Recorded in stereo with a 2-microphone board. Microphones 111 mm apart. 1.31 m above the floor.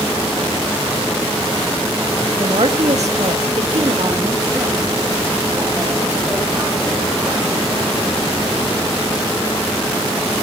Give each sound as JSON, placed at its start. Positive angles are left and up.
{"t": 2.4, "sound": "a woman speaking", "side_deg": -50, "distance_m": 1.8}